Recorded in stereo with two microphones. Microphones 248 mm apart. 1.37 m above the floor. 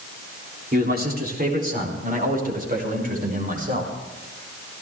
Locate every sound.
0.7 s a man speaking: 40° right (ahead or behind), 3.5 m; by 3.9 s 35° right (ahead or behind), 6.5 m